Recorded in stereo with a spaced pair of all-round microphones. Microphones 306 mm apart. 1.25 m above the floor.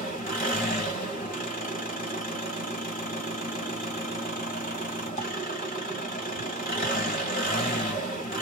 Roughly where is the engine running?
Left.